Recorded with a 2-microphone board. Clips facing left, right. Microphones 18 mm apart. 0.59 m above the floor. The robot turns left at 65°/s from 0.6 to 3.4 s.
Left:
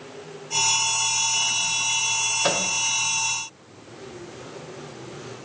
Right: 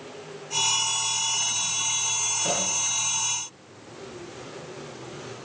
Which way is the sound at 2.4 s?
70° left (ahead or behind).